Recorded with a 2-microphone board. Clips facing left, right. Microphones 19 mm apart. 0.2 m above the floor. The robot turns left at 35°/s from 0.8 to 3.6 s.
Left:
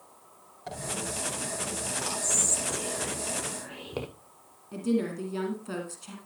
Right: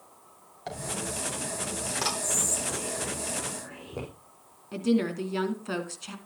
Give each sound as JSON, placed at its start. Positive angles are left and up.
{"t": 0.7, "sound": "a dropped coin", "side_deg": -30, "distance_m": 3.5}
{"t": 2.2, "sound": "whispering", "side_deg": 20, "distance_m": 6.0}
{"t": 4.7, "sound": "a woman speaking", "side_deg": -30, "distance_m": 2.5}